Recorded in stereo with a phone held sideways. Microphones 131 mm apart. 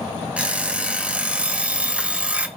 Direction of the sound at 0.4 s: 10° right (ahead or behind).